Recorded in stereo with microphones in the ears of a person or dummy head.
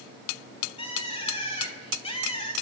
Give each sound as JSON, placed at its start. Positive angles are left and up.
{"t": 0.8, "sound": "a bird", "side_deg": 20, "distance_m": 1.1}